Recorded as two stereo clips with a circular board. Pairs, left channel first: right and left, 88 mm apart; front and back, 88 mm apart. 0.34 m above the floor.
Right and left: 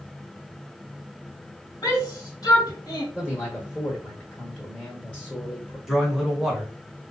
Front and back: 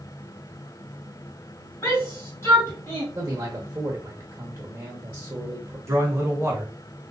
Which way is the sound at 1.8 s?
55° right.